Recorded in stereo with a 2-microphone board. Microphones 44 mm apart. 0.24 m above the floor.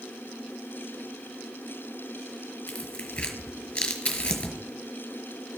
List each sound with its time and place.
2.7 s tearing paper: 25° left (ahead or behind), 1.5 m